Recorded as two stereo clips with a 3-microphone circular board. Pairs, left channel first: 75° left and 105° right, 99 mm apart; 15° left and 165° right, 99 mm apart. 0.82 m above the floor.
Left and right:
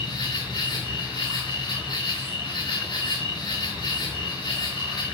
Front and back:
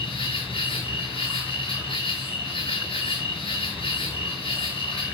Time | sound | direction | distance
0.0 | an insect | 30° left | 6.5 m